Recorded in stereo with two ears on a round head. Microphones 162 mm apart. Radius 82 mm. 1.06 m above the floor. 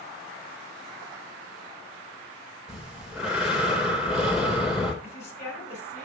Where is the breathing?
5° right (ahead or behind), 4 m.